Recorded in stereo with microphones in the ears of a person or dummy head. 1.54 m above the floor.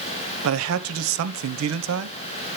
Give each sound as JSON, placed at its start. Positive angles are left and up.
{"t": 0.4, "sound": "a man speaking", "side_deg": -75, "distance_m": 0.9}